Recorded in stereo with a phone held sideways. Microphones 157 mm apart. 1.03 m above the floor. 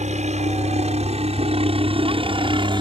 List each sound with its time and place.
0.0 s a helicopter: 50° right (ahead or behind); by 2.8 s 30° right (ahead or behind)